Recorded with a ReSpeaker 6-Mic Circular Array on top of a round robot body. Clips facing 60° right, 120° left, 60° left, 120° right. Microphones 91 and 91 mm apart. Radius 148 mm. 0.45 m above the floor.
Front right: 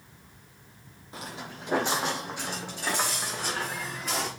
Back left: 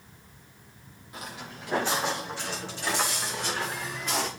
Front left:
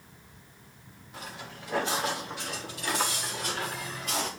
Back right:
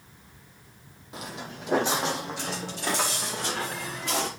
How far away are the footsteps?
About 1.0 m.